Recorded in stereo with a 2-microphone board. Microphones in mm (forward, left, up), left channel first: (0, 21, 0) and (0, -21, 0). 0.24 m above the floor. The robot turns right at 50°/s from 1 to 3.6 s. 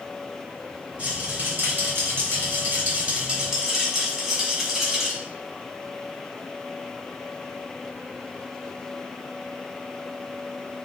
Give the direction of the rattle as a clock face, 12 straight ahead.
5 o'clock.